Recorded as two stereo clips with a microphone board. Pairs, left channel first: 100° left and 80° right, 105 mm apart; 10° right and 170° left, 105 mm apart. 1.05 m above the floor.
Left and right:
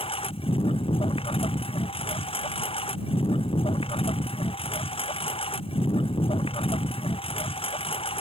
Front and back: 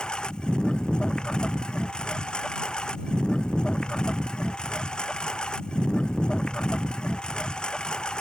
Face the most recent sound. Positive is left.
turn(degrees=70)